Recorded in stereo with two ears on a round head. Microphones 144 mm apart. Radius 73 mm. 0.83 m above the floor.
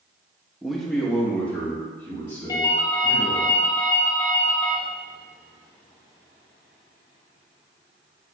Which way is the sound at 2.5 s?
25° left (ahead or behind).